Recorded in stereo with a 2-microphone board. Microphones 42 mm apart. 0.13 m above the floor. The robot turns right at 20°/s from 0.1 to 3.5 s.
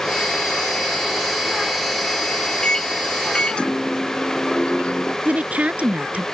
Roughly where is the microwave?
Centre.